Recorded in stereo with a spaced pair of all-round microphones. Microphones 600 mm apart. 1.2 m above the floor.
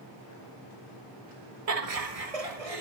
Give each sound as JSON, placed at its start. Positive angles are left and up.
{"t": 1.7, "sound": "laughter", "side_deg": -75, "distance_m": 1.4}